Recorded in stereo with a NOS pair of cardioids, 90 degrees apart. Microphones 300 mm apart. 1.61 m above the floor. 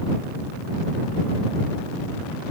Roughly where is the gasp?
No gasp in this recording.